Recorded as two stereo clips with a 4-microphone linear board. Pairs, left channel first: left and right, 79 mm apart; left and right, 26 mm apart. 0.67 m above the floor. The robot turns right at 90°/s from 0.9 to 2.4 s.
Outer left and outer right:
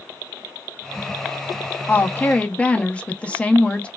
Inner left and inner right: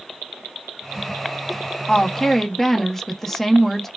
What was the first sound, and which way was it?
A woman speaking, 25° left (ahead or behind).